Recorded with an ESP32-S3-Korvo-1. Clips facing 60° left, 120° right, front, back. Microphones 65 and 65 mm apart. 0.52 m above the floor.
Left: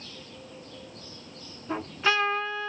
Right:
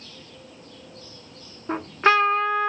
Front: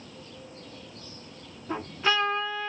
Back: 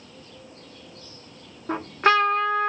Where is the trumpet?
155° right, 0.8 m.